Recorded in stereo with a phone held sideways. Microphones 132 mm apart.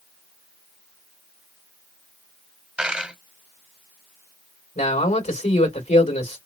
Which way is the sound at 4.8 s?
80° left.